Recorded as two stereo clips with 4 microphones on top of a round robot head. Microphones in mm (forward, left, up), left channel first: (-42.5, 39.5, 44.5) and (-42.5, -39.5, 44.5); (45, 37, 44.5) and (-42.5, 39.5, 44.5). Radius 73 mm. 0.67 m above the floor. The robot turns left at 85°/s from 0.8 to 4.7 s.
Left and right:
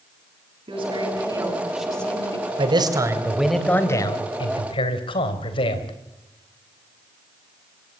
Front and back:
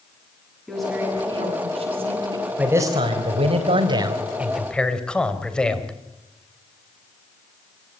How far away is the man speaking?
About 3 m.